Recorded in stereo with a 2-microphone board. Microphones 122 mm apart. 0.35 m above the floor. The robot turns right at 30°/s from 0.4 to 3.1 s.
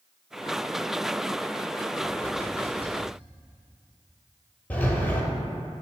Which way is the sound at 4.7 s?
10° left (ahead or behind).